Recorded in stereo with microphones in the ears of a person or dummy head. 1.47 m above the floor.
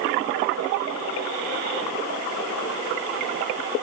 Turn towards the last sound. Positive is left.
No sound to turn to.